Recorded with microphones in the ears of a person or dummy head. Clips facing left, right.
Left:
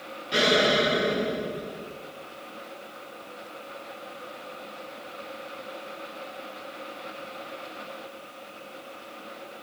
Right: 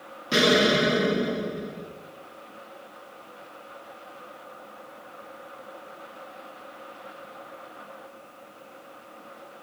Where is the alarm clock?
No alarm clock in this recording.